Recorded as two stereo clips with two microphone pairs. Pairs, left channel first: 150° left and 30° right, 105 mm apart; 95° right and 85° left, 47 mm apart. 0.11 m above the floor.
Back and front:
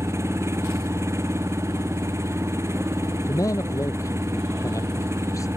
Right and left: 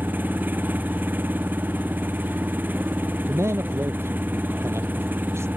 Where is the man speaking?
90° left.